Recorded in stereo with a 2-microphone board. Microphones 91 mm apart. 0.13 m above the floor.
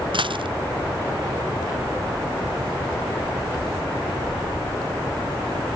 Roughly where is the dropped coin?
Right.